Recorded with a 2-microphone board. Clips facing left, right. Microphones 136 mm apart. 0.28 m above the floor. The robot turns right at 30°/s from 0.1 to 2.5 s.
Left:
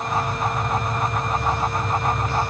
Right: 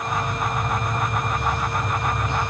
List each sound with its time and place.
Only background noise.